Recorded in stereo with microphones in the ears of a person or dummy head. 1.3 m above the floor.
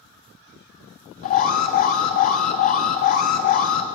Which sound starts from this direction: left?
An alarm, at 1.2 s.